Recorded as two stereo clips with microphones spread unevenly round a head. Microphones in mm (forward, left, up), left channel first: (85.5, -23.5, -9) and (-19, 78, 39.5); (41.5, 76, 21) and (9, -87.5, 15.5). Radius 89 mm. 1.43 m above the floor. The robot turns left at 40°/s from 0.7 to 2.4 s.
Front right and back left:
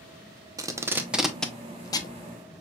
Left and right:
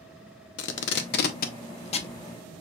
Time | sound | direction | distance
0.6 | tape being pulled | 75° left | 0.7 m